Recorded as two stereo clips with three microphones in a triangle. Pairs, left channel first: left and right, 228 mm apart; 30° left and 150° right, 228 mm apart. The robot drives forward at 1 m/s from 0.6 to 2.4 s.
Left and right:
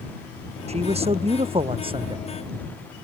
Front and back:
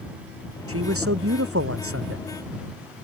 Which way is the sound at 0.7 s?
150° right.